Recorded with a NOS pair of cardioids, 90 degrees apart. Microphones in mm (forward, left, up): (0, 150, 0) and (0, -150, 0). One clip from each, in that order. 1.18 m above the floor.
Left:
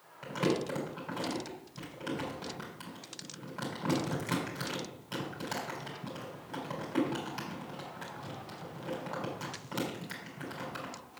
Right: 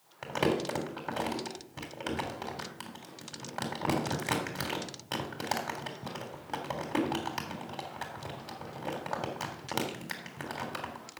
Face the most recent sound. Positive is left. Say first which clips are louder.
# right 2 dB
turn(degrees=-60)